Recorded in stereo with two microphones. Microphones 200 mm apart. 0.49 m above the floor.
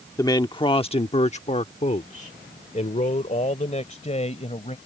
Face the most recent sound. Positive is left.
turn(degrees=30)  # may be behind; listen again after turning